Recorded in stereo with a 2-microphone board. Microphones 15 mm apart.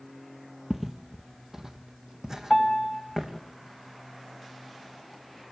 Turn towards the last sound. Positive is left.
turn(degrees=10)  # may be behind; listen again after turning